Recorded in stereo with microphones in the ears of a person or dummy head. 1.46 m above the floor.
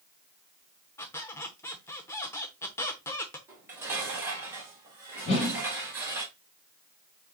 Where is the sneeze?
I don't hear a sneeze.